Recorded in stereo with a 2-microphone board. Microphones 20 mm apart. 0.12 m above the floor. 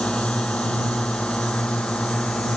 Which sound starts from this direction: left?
A drone, at 0.0 s.